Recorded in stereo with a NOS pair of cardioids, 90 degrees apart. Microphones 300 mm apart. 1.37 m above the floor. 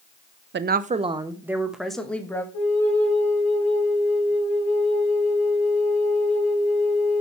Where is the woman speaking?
40° right, 0.7 m; by 2.4 s 5° left, 1.6 m.